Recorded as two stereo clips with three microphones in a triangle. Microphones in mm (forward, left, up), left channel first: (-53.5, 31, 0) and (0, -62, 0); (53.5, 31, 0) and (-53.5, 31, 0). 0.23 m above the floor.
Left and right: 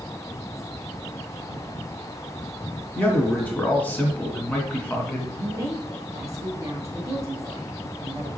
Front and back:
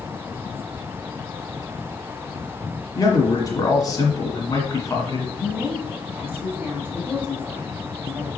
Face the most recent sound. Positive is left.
turn(degrees=-115)